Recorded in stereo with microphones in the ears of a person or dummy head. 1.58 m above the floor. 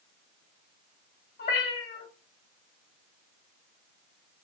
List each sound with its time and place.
1.4 s a cat meowing: 40° left (ahead or behind), 1.9 m